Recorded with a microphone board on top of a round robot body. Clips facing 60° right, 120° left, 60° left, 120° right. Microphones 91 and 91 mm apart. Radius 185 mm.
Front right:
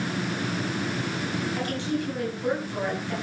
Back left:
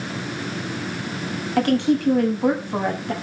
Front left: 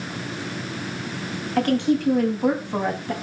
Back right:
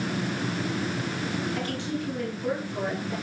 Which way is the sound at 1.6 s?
90° left.